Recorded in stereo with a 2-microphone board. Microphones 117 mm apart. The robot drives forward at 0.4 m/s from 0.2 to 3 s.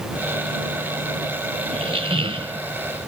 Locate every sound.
1.7 s a squeak: 55° right (ahead or behind); by 2.6 s 50° right (ahead or behind)